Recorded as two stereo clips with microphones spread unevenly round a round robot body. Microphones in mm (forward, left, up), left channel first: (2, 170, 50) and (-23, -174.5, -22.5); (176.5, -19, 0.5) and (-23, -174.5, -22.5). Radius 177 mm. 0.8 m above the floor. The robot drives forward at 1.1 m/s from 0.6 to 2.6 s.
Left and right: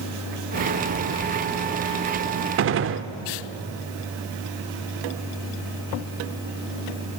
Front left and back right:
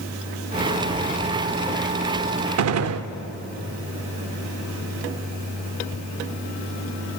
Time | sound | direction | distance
2.6 | a gunshot | 150° right | 0.5 m